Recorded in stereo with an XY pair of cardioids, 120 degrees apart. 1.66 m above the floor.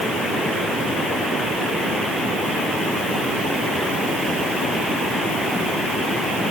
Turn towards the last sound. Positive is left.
No sound to turn to.